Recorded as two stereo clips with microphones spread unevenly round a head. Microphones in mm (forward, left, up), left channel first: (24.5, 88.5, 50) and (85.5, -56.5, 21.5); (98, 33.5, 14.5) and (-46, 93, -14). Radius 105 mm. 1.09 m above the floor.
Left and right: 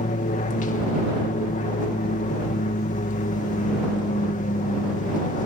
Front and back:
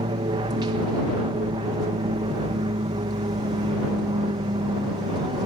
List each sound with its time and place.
0.0 s an aircraft: 130° left